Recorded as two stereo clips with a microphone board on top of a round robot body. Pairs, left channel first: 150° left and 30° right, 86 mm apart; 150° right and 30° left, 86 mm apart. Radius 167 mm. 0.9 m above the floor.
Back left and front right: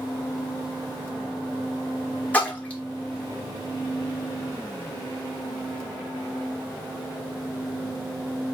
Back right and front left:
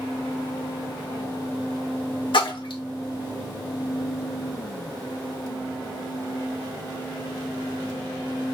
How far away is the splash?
About 1.7 m.